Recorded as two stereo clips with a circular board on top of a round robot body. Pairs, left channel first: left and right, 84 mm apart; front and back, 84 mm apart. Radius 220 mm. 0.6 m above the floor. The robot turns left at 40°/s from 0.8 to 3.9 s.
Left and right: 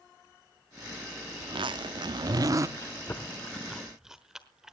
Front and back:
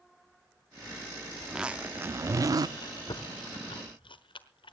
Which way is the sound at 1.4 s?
90° right.